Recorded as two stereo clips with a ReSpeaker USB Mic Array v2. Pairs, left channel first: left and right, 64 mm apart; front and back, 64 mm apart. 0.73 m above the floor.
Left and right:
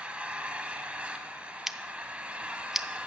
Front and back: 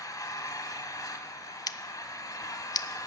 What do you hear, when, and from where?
0.0 s an engine running: 20° right, 1.3 m
1.7 s scissors: 5° right, 0.5 m